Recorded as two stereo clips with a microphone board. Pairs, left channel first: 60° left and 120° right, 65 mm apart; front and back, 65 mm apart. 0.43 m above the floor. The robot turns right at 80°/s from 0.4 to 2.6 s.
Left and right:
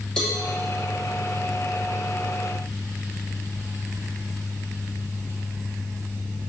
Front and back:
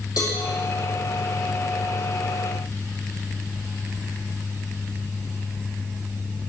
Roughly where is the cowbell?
Ahead right.